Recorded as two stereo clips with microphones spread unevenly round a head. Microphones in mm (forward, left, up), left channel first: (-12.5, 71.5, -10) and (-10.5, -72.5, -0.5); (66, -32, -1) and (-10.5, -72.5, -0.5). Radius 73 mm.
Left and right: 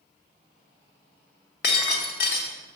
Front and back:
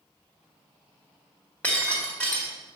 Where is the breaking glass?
105° left, 1.4 m.